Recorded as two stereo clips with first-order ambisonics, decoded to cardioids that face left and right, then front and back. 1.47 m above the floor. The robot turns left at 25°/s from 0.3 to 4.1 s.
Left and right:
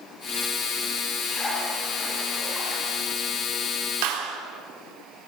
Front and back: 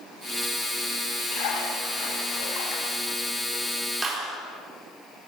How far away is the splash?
About 8.5 m.